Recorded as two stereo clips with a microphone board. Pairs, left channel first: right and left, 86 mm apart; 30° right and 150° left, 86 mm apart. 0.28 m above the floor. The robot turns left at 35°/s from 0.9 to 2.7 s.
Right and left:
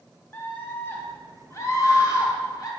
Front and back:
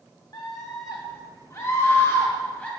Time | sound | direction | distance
0.3 | a scream | 35° right | 1.9 m